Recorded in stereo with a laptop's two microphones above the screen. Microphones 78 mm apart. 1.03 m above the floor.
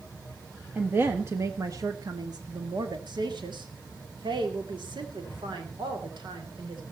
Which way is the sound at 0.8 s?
20° right (ahead or behind).